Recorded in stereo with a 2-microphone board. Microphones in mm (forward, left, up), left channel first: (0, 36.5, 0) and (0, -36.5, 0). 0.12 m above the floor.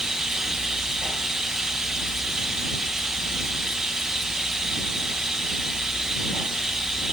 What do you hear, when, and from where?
0.0 s running water: 5° right (ahead or behind)